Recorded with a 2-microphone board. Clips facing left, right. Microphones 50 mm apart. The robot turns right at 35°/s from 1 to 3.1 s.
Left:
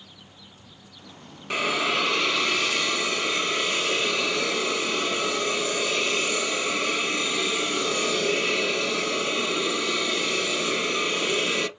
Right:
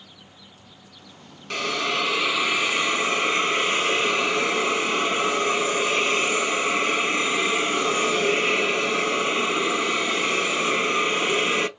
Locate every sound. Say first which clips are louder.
1.5 s a hiss: left 1 dB; 160° left, 0.8 m; by 11.7 s 140° right, 0.8 m